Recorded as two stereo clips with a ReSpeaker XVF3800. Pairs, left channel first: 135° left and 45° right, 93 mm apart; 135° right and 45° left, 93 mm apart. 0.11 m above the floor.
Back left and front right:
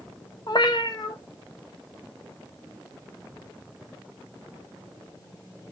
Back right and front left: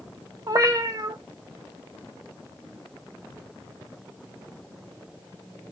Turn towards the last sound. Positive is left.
turn(degrees=95)